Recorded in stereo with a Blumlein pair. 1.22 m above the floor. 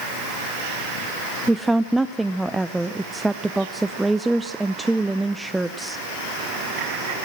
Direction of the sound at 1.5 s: 5° right.